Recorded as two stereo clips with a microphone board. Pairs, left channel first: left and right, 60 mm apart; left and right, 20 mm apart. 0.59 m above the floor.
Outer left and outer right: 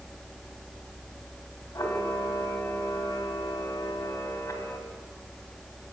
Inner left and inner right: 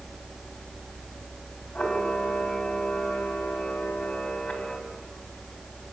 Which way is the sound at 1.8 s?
65° left (ahead or behind).